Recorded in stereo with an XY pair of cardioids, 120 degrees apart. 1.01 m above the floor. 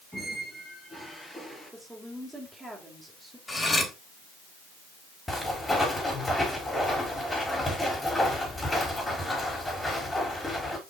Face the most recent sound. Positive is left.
turn(degrees=15)